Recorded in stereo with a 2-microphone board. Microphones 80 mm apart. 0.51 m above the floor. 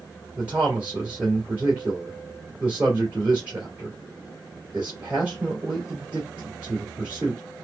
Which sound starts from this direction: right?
A man speaking, at 0.4 s.